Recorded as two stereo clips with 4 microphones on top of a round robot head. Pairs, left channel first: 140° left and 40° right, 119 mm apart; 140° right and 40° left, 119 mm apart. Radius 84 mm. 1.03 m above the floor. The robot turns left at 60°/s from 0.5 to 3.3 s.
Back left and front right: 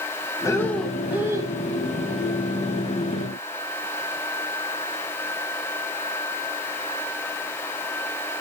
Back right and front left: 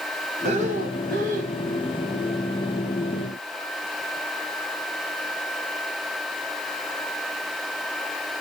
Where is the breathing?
75° left, 1.4 m; by 1.6 s 10° left, 1.4 m.